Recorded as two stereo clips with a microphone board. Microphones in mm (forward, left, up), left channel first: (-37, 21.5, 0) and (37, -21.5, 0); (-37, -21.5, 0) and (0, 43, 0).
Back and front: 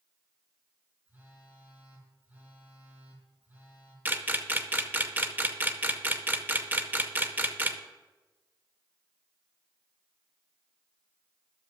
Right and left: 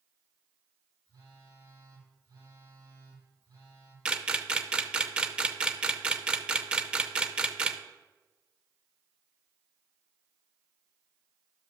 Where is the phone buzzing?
35° left, 3 m.